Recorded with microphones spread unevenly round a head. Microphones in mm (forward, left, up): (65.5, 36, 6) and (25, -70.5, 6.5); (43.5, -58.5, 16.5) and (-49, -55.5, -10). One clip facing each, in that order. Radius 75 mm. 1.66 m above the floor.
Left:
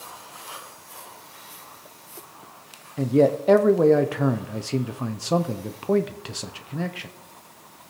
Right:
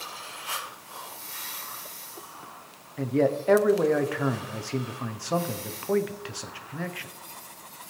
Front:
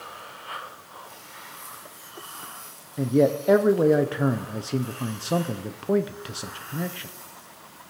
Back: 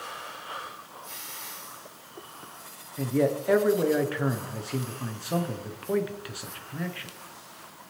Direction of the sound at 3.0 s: 15° left.